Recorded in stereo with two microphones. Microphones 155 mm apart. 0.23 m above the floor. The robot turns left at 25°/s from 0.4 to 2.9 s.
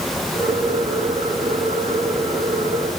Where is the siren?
I don't hear a siren.